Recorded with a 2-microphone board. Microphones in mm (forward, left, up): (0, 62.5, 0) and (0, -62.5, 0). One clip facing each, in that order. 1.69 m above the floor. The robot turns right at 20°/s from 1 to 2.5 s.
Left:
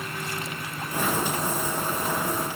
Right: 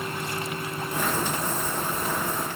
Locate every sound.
Only background noise.